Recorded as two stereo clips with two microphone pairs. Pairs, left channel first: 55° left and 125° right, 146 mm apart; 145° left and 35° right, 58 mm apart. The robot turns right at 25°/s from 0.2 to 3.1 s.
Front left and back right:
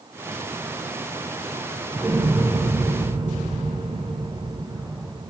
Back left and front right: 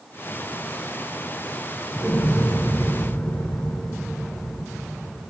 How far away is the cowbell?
I don't hear a cowbell.